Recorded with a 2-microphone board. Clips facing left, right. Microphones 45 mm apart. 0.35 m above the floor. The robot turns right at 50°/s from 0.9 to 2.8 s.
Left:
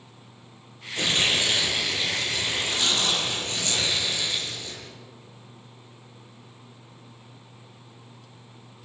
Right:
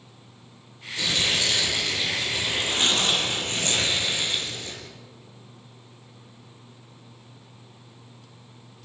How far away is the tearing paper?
About 6 m.